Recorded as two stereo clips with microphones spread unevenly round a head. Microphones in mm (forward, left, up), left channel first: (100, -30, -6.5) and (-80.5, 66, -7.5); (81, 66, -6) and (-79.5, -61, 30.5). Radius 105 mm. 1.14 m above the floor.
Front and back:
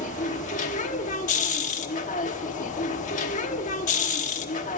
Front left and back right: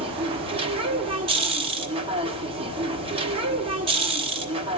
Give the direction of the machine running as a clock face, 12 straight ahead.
3 o'clock.